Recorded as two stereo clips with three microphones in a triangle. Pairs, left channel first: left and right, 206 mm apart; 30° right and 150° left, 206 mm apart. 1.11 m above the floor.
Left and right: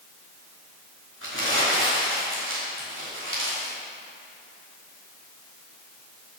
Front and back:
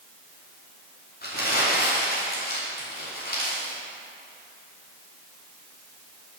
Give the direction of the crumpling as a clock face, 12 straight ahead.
2 o'clock.